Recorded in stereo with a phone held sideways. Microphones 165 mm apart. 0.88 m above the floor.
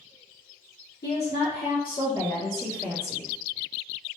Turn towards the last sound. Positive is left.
turn(degrees=5)  # may be behind; listen again after turning